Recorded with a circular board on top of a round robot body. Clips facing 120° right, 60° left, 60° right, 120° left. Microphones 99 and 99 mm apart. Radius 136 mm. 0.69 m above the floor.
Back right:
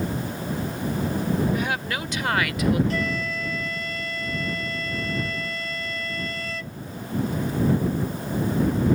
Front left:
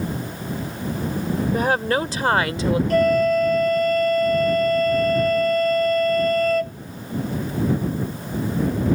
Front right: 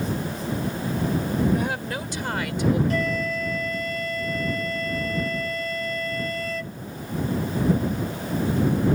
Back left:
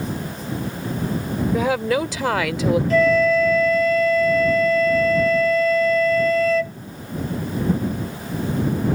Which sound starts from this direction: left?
A flute, at 2.9 s.